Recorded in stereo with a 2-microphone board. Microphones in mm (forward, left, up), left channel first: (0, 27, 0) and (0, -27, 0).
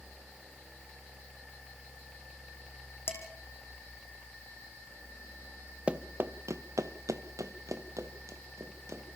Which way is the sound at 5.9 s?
25° right (ahead or behind).